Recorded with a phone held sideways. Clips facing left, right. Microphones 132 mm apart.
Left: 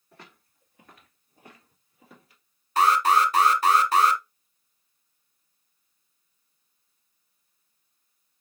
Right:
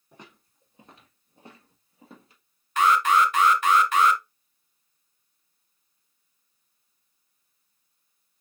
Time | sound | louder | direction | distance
0.1 | footsteps | right 1 dB | 15° right (ahead or behind) | 1.4 m
2.8 | an alarm | even | 35° left (ahead or behind) | 0.7 m